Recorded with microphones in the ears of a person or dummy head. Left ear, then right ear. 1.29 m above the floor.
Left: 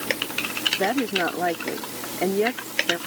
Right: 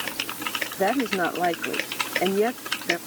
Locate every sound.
0.8 s a woman speaking: 5° right (ahead or behind)